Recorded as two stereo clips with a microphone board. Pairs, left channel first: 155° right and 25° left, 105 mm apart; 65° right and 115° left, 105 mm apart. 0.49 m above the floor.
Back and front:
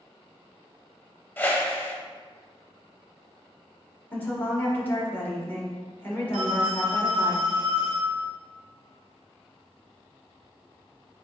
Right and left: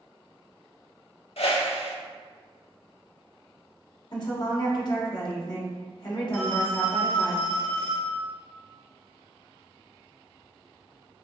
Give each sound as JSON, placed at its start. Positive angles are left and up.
{"t": 1.4, "sound": "a whoosh", "azimuth_deg": -85, "distance_m": 0.6}
{"t": 4.1, "sound": "a woman speaking", "azimuth_deg": -90, "distance_m": 1.2}
{"t": 6.3, "sound": "a phone ringing", "azimuth_deg": 45, "distance_m": 1.2}